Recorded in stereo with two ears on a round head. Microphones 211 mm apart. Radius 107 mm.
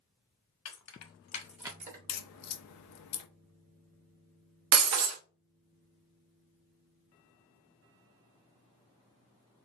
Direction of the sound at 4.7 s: 75° right (ahead or behind).